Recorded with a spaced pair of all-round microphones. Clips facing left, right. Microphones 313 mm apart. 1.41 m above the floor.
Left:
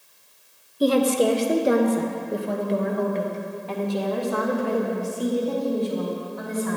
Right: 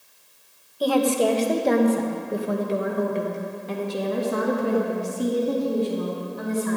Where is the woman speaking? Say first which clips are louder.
Left 1 dB; 30° left (ahead or behind), 1.3 m; by 6.8 s 35° right (ahead or behind), 3.5 m.